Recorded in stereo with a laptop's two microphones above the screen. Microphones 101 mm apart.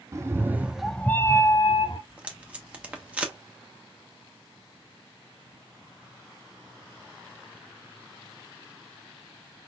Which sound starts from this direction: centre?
Tape being pulled, at 2.1 s.